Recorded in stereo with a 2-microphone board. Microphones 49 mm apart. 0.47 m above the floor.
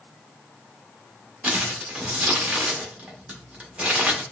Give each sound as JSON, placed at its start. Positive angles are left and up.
{"t": 1.4, "sound": "crumpling", "side_deg": -25, "distance_m": 1.0}